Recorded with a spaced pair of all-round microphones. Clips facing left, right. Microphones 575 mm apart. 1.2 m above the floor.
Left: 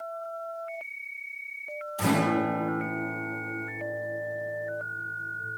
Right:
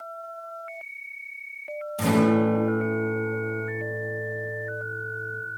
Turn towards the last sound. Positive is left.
turn(degrees=-50)  # may be behind; listen again after turning